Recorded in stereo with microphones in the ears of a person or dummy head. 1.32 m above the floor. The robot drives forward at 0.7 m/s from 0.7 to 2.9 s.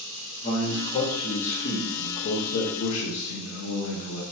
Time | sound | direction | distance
0.4 | a man speaking | 35° left (ahead or behind) | 1.9 m